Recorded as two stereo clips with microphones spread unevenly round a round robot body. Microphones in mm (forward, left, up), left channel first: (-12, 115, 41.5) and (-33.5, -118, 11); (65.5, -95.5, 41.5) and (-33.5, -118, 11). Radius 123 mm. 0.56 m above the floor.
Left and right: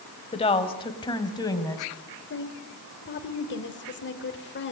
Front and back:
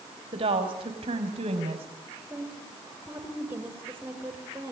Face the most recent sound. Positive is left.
turn(degrees=125)